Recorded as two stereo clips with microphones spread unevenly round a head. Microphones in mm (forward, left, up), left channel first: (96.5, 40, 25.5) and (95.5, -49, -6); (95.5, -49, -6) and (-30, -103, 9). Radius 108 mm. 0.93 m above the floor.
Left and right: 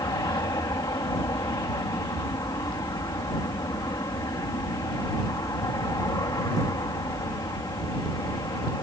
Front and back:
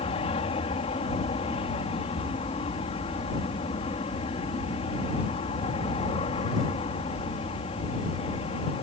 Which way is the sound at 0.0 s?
60° left.